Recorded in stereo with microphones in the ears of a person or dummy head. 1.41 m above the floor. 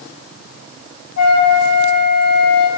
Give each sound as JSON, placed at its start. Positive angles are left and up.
{"t": 1.2, "sound": "a flute", "side_deg": 50, "distance_m": 1.9}